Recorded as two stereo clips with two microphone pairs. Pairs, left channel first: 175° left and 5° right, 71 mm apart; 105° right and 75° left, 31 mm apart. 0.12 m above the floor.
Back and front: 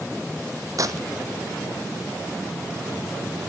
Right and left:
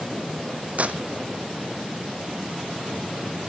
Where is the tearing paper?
30° left, 1.0 m.